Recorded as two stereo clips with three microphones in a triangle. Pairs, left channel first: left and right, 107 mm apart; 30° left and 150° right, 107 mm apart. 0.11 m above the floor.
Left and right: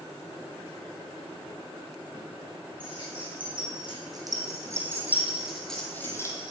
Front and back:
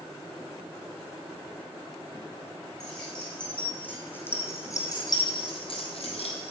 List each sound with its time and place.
2.8 s keys jangling: 55° right, 5 m; by 6.5 s 35° left, 2 m